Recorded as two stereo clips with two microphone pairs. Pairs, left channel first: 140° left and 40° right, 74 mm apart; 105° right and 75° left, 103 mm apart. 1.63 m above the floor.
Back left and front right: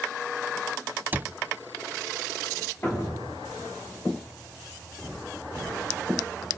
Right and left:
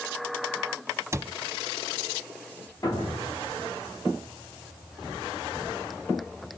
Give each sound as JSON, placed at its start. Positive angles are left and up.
{"t": 1.1, "sound": "a cupboard door", "azimuth_deg": 15, "distance_m": 0.7}
{"t": 2.8, "sound": "a thud", "azimuth_deg": -160, "distance_m": 8.0}